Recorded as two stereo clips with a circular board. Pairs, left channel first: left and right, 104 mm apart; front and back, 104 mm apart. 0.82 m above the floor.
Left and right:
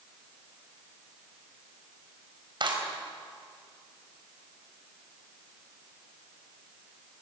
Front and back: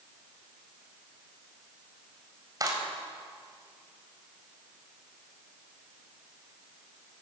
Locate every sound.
2.6 s a clap: 125° right, 4.5 m